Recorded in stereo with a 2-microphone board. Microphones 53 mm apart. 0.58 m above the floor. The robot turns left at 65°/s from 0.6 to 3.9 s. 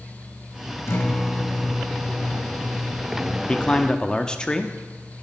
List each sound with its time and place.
0.9 s a guitar: 55° left, 0.9 m; by 3.4 s 110° right, 0.9 m
3.5 s a man speaking: 20° left (ahead or behind), 0.6 m; by 4.7 s 15° left (ahead or behind), 0.6 m